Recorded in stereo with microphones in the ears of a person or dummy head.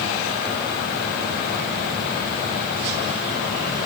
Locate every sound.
Only background noise.